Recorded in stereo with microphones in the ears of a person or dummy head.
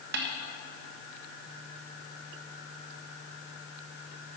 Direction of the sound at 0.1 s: 65° right (ahead or behind).